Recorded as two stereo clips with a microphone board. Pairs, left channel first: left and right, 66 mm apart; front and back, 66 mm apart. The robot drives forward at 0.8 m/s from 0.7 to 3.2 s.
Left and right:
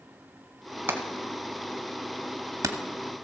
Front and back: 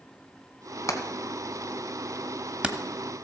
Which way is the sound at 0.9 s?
35° right.